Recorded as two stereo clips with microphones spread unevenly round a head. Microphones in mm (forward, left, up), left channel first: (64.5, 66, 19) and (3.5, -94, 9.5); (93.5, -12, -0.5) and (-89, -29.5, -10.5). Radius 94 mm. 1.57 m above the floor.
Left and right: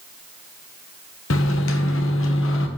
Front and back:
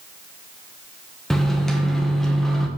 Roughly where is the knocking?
I don't hear knocking.